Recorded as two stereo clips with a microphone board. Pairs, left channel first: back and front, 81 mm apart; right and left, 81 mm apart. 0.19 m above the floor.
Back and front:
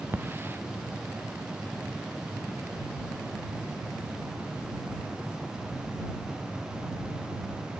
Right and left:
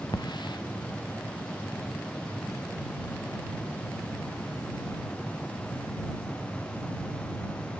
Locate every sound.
0.1 s a hiss: 65° right